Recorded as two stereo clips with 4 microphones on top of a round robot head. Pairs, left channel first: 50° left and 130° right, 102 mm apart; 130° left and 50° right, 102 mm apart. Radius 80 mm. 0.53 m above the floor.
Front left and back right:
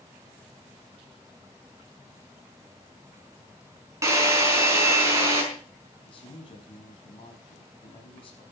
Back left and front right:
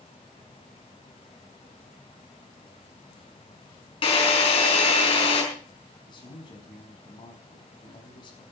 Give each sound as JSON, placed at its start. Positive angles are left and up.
{"t": 4.0, "sound": "a drill", "azimuth_deg": 165, "distance_m": 5.0}
{"t": 6.0, "sound": "a man speaking", "azimuth_deg": 90, "distance_m": 5.5}